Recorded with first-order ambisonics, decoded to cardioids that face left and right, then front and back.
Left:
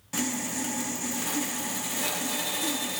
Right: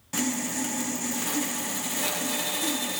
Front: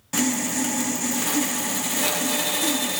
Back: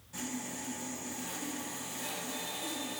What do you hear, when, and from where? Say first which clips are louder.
0.1 s sawing: right 2 dB, front 16 dB; 5° right, 0.9 m